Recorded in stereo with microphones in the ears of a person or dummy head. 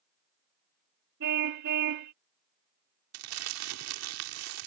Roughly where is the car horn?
Right.